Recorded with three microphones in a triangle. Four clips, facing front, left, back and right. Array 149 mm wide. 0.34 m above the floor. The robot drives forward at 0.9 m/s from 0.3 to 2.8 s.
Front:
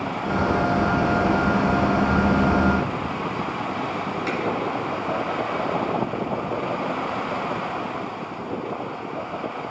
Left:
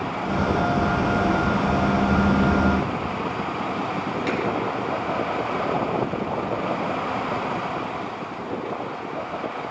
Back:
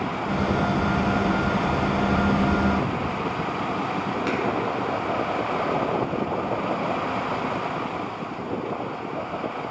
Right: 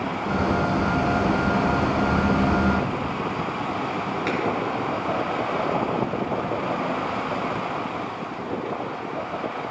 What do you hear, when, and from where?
4.3 s a finger snap: 150° right, 1.8 m